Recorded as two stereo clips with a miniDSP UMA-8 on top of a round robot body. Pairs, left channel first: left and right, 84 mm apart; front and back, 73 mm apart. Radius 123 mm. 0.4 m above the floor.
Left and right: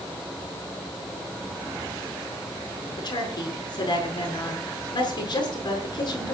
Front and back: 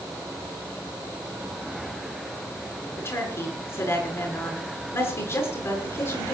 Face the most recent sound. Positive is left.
turn(degrees=55)